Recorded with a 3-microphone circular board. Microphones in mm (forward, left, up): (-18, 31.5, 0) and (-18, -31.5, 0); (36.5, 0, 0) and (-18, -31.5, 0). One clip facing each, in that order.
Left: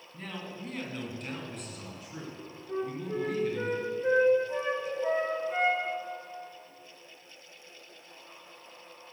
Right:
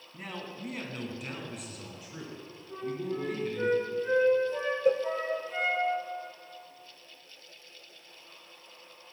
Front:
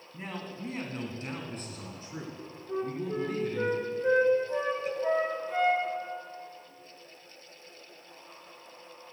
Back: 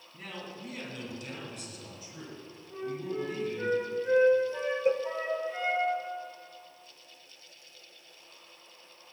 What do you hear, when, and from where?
0.1 s a man speaking: 20° right, 1.9 m; by 3.7 s straight ahead, 4 m
2.7 s a flute: 40° left, 3.5 m
4.8 s a cowbell: 95° right, 0.5 m